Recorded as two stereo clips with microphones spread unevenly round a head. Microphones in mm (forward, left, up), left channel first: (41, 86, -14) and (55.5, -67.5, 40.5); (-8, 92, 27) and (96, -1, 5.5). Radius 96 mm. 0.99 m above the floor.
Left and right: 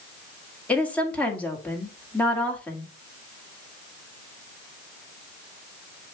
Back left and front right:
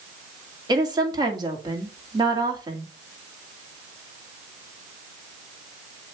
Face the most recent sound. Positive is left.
turn(degrees=20)